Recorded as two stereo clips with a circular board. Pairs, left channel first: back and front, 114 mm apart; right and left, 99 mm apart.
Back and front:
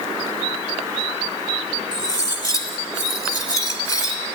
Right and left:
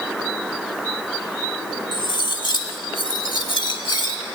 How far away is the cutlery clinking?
About 0.9 m.